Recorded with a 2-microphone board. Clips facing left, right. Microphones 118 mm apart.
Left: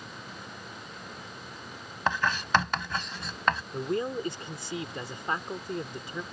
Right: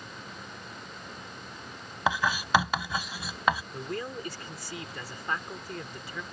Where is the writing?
10° right (ahead or behind).